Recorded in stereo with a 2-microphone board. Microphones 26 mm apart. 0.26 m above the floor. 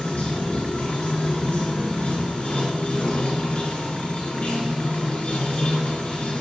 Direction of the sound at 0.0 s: 60° left (ahead or behind).